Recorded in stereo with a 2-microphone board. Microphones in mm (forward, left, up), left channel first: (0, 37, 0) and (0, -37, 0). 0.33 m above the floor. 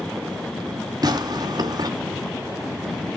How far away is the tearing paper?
About 2 m.